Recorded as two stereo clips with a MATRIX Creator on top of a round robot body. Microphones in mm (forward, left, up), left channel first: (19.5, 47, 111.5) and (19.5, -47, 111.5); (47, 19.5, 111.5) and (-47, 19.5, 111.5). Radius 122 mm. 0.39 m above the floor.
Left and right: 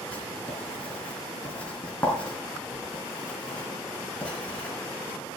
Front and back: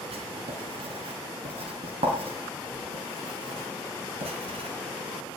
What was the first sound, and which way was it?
Writing, 170° left.